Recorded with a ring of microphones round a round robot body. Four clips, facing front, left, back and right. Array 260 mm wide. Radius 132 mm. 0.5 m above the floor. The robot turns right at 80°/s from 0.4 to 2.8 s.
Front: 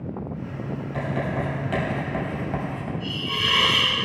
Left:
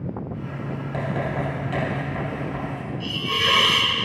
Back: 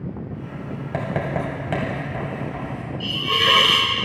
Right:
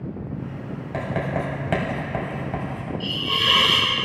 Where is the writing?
175° right, 3 m; by 2.9 s 25° right, 3 m.